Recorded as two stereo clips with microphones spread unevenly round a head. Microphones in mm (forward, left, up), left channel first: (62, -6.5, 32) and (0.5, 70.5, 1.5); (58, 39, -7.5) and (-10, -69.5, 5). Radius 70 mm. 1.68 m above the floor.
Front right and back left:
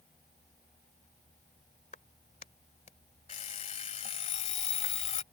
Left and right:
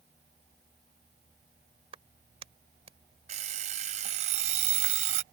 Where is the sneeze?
No sneeze in this recording.